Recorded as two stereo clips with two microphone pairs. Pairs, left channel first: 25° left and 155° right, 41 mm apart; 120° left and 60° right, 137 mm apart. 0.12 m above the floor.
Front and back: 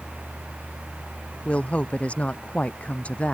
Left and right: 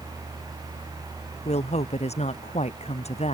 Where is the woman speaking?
85° left.